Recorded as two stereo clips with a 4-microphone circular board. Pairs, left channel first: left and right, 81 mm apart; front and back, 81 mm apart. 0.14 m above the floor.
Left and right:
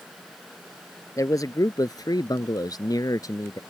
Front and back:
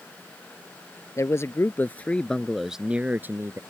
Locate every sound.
1.2 s a man speaking: 50° left; by 3.6 s 130° left